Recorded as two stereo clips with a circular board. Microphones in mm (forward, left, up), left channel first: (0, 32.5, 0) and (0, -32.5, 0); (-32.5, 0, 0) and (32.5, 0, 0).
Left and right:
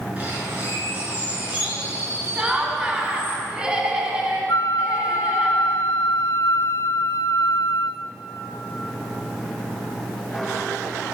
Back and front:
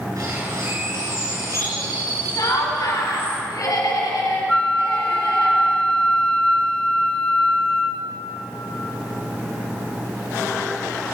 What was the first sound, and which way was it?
A bird, 25° right.